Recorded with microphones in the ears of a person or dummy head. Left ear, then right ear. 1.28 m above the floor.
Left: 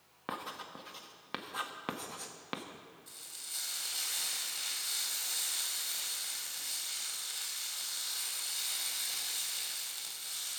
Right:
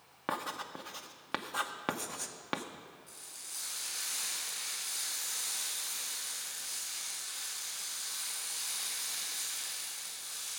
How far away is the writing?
About 0.5 m.